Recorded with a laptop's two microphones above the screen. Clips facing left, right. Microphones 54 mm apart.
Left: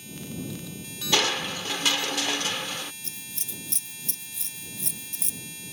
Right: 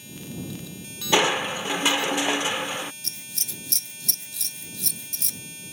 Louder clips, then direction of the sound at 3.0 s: Right 2 dB; 75° right (ahead or behind).